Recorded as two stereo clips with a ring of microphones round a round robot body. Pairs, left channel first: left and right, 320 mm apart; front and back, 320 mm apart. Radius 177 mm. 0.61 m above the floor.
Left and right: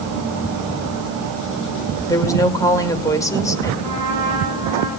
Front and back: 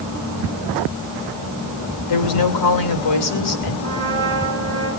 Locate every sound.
2.1 s a woman speaking: 10° left, 2.5 m
3.8 s a trumpet: 120° right, 8 m